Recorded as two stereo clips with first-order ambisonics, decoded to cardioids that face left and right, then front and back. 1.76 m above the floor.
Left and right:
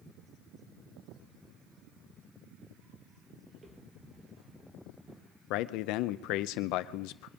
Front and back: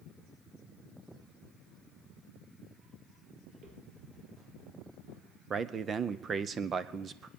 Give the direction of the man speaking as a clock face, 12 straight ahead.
8 o'clock.